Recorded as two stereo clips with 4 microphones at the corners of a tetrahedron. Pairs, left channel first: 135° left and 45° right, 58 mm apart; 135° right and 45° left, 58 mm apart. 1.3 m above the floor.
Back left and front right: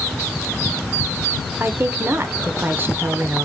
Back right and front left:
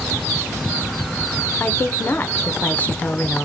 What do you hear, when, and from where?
1.6 s a woman speaking: 85° right, 0.6 m